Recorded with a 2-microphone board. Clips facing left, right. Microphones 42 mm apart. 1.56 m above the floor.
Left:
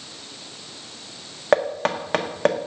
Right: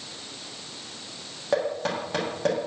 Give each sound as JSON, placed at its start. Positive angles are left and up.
{"t": 1.5, "sound": "knocking", "side_deg": 55, "distance_m": 1.4}